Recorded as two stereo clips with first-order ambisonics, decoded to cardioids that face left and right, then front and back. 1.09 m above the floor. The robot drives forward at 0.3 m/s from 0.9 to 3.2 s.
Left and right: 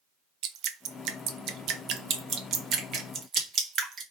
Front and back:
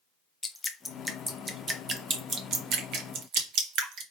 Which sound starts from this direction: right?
Dripping, at 0.4 s.